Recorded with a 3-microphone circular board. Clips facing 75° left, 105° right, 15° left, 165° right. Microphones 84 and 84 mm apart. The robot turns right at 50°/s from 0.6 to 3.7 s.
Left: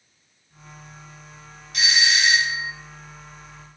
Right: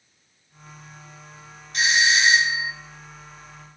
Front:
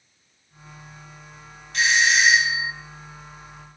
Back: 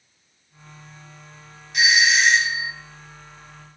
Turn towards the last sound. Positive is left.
turn(degrees=5)